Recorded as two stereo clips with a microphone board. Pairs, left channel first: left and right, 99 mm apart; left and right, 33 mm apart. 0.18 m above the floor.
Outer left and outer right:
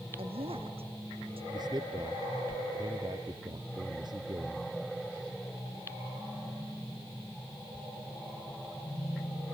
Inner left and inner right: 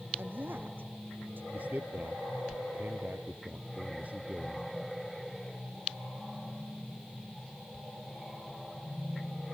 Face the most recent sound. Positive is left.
turn(degrees=-45)  # may be behind; listen again after turning